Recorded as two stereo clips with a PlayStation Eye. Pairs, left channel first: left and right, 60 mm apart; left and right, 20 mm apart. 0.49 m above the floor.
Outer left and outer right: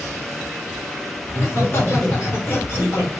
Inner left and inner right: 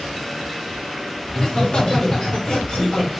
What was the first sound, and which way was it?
Laughter, 45° left (ahead or behind).